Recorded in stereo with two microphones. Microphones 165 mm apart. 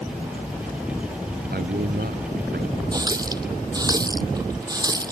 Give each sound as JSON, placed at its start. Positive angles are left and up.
{"t": 1.5, "sound": "a man speaking", "side_deg": -80}
{"t": 2.9, "sound": "a running tap", "side_deg": -25}